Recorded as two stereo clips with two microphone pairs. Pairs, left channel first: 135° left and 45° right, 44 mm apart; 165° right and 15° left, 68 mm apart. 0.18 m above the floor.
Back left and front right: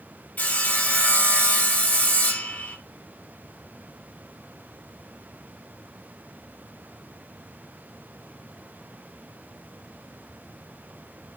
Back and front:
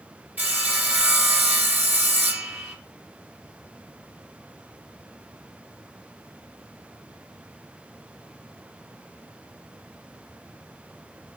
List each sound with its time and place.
0.4 s sawing: 75° left, 2.5 m